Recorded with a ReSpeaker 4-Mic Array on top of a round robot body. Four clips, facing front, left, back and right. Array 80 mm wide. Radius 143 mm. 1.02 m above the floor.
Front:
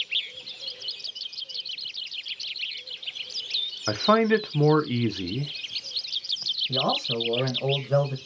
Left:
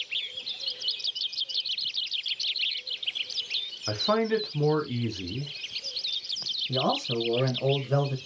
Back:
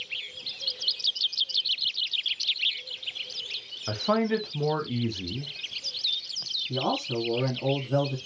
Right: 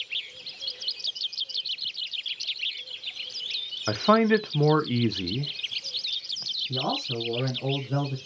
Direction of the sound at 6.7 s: 45° left.